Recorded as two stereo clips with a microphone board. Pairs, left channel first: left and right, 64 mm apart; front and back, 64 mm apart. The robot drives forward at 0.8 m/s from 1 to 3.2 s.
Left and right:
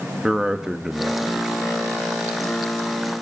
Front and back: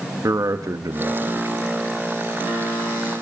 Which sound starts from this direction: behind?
A man speaking, at 0.2 s.